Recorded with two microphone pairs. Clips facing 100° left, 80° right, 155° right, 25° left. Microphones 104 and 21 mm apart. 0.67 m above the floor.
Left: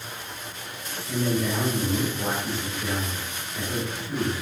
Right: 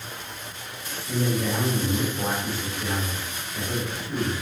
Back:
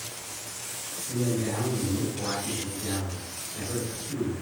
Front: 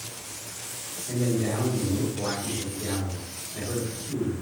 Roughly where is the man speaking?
Ahead.